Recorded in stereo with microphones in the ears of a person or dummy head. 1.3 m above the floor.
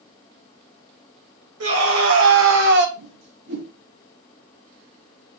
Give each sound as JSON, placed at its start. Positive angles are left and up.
{"t": 1.6, "sound": "a scream", "side_deg": -80, "distance_m": 2.5}
{"t": 3.0, "sound": "a whoosh", "side_deg": -55, "distance_m": 4.0}